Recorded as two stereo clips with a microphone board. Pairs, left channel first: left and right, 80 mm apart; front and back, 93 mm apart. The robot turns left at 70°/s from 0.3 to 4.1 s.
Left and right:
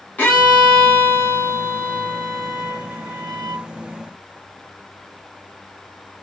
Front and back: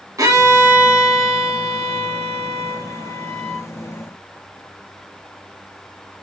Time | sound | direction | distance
0.2 | a violin | 155° left | 1.1 m